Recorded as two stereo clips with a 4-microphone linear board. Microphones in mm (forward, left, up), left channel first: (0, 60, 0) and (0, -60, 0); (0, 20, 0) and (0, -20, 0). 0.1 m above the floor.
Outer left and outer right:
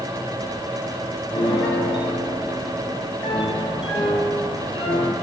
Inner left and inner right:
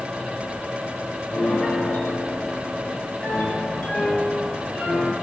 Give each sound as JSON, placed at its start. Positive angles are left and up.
{"t": 1.3, "sound": "a piano", "side_deg": 50, "distance_m": 4.0}